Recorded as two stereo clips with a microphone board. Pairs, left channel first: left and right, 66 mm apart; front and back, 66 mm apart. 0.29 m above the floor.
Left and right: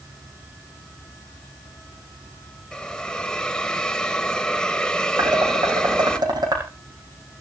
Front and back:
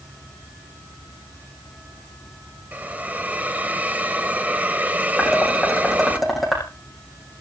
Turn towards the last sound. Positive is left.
turn(degrees=-90)